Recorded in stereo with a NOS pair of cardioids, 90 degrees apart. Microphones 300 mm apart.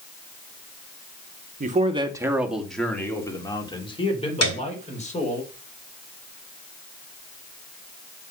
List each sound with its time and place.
1.6 s a man speaking: 30° right, 1.7 m; by 5.4 s 25° left, 5 m
4.4 s a piano: 55° left, 3 m